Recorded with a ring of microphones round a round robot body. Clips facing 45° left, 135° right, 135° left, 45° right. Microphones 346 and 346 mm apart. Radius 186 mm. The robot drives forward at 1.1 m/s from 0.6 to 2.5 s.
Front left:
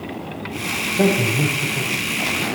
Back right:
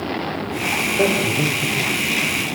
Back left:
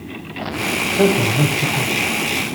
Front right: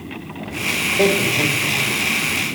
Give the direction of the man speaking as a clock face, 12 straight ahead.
9 o'clock.